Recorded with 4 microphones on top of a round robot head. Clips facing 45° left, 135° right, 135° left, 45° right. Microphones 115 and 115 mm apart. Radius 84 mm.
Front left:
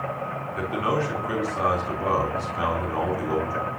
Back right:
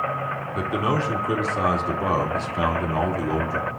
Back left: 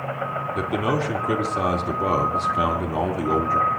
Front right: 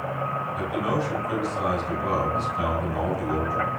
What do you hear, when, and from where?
0.6 s a man speaking: 160° left, 3 m